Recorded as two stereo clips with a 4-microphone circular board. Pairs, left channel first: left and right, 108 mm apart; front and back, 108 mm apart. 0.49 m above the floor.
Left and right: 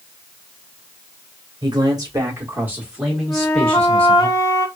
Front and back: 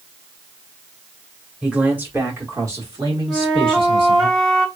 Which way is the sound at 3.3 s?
100° left.